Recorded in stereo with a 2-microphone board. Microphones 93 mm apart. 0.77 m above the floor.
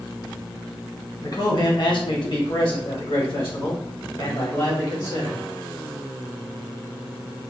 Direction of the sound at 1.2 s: 40° left (ahead or behind).